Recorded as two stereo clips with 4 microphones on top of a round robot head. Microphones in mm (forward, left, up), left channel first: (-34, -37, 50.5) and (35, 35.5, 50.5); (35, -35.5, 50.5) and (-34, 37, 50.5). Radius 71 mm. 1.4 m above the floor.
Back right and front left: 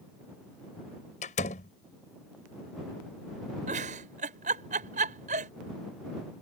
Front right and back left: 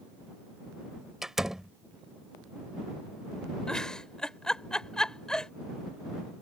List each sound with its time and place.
1.2 s a door slam: 140° right
3.7 s a giggle: 40° left